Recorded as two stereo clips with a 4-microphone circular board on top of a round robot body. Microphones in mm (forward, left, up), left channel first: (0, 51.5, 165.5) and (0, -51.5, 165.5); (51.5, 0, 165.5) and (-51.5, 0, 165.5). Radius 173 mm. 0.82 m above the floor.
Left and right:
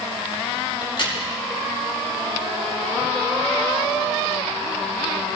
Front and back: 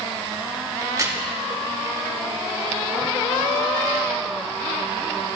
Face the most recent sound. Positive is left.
turn(degrees=120)